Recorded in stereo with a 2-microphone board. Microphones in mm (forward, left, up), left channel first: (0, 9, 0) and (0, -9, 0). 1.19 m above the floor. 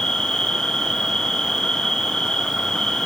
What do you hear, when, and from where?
0.0 s an insect: 45° left (ahead or behind), 0.9 m